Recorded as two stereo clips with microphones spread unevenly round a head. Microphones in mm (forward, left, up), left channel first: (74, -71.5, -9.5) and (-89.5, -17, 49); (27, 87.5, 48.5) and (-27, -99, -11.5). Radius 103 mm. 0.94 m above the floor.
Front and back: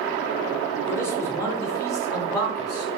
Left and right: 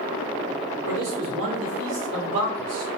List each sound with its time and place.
0.9 s a man speaking: 90° right, 3 m; by 3.0 s 85° right, 5 m